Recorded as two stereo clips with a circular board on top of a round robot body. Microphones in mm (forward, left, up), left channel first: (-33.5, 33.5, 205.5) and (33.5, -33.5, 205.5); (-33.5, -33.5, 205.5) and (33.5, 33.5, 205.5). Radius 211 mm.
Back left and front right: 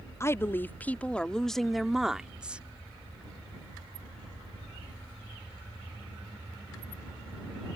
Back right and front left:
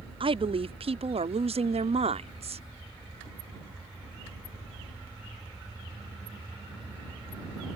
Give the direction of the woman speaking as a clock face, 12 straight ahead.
10 o'clock.